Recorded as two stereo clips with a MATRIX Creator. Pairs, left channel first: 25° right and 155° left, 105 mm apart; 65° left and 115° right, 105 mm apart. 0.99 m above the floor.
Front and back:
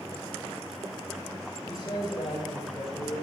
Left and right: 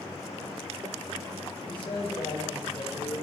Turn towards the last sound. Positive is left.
turn(degrees=25)